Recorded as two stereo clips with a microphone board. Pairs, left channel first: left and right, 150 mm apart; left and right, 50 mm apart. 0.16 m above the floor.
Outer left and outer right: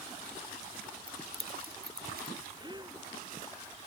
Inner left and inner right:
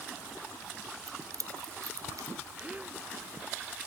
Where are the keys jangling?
80° right.